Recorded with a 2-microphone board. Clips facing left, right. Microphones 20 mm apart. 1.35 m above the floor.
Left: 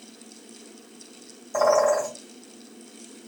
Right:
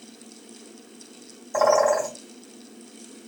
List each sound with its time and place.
1.5 s a bird: 10° right (ahead or behind), 1.8 m